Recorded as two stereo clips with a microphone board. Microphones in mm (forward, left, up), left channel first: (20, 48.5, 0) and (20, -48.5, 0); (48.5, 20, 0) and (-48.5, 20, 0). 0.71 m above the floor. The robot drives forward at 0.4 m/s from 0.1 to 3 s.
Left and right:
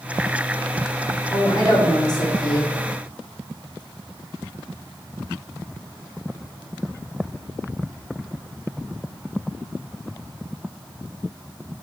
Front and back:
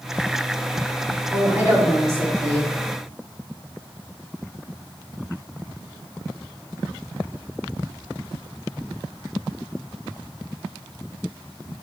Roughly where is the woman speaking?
Left.